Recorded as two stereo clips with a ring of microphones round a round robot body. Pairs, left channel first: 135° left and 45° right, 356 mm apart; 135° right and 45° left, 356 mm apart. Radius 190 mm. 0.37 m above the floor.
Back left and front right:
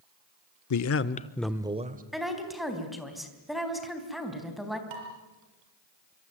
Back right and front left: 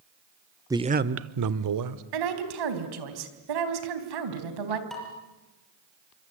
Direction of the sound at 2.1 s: 45° left.